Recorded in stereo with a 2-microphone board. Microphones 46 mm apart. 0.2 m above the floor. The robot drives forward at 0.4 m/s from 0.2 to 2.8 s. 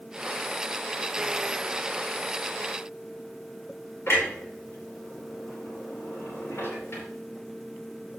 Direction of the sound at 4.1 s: 60° left (ahead or behind).